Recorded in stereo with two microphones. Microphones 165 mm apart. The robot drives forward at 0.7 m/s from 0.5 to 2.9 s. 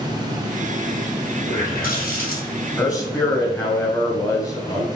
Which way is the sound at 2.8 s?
25° left (ahead or behind).